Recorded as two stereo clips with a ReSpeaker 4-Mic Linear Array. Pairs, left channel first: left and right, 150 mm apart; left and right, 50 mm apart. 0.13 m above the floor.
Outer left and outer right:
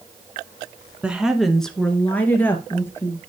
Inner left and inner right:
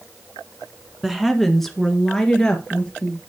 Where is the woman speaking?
10° right (ahead or behind), 1.1 m; by 3.2 s 15° left (ahead or behind), 2 m.